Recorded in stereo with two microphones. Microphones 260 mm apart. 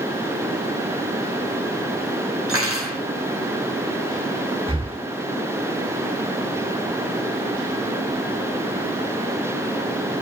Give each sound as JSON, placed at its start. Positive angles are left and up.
{"t": 2.5, "sound": "cutlery clinking", "side_deg": -55, "distance_m": 5.5}
{"t": 4.7, "sound": "breathing", "side_deg": -20, "distance_m": 1.2}